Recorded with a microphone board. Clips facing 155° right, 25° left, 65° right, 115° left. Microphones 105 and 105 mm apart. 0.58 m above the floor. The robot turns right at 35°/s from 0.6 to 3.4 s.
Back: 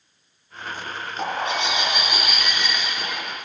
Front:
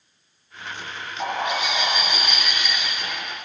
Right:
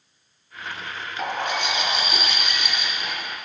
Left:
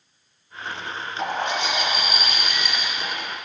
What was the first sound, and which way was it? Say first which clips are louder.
A bird: even, left 1 dB; 110° right.